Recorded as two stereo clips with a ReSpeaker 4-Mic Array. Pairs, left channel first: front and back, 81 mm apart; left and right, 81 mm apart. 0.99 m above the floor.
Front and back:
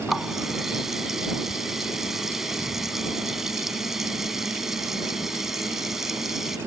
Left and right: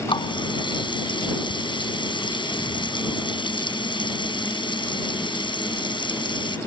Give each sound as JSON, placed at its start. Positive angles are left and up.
{"t": 0.1, "sound": "a running tap", "azimuth_deg": 95}